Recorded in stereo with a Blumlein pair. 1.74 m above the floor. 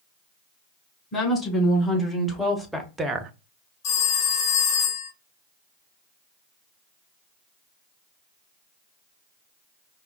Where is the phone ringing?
40° left, 2 m.